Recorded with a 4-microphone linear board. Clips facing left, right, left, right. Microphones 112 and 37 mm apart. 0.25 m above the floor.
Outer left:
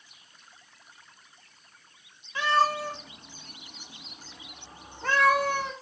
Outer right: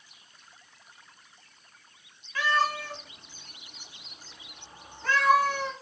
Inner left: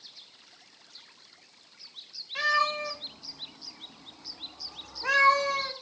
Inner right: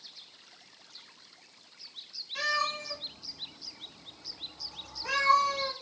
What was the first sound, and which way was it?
A cat meowing, 25° left (ahead or behind).